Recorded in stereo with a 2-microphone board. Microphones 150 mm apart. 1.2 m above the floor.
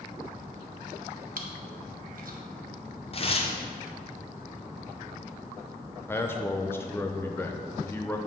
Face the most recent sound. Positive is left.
turn(degrees=15)  # may be behind; listen again after turning